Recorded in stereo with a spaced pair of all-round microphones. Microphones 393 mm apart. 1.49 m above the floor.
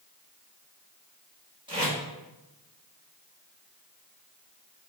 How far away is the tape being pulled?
About 1.6 m.